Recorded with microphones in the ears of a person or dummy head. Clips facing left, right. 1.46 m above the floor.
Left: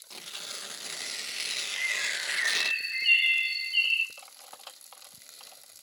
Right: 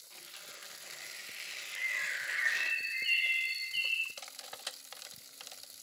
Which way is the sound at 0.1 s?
60° left (ahead or behind).